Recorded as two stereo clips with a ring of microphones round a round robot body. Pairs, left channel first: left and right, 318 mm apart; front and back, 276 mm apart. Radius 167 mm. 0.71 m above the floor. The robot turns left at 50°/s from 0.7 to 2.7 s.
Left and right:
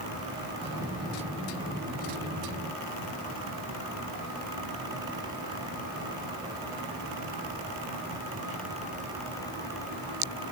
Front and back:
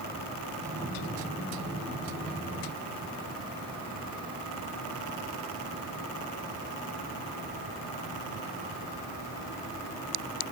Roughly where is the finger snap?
No finger snap in this recording.